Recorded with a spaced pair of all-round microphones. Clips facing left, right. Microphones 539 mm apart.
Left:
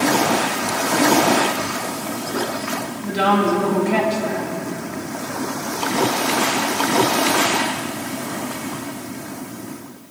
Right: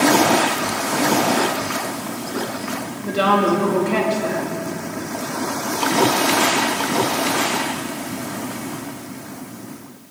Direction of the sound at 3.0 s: 10° left (ahead or behind).